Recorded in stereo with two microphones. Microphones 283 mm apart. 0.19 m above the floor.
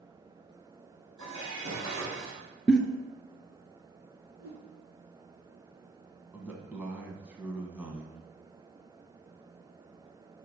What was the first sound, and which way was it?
Dishes clattering, 80° right.